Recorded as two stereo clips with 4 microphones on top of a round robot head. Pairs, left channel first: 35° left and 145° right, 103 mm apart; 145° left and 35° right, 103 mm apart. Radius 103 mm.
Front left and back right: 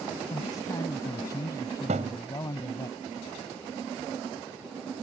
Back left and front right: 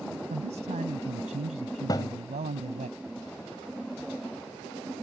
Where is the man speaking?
25° right.